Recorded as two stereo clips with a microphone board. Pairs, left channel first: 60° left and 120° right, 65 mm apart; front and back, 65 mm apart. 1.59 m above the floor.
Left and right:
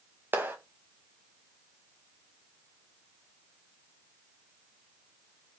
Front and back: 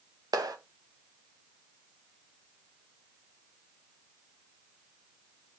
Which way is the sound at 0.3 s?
175° right.